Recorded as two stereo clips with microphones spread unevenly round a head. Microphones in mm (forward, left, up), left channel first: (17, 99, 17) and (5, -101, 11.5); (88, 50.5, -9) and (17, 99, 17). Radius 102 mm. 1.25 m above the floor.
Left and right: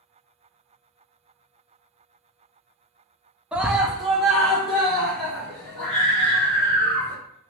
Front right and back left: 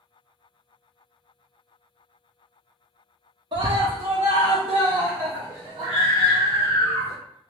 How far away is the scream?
About 0.5 m.